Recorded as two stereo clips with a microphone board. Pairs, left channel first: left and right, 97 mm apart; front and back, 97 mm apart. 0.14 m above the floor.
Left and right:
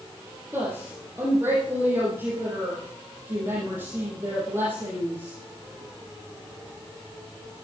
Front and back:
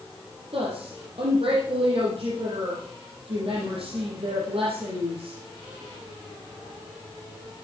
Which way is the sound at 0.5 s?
160° right.